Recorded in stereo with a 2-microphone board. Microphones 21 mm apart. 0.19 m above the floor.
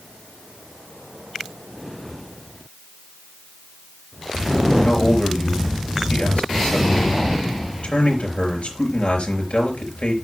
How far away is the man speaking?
About 4 m.